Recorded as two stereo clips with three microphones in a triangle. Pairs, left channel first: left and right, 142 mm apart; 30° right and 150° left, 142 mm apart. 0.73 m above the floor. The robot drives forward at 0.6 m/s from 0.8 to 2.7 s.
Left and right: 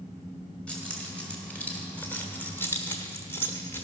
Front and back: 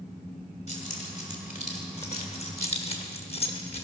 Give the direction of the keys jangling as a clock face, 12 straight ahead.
12 o'clock.